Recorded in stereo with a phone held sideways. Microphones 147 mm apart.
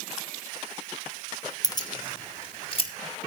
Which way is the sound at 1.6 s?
25° left (ahead or behind).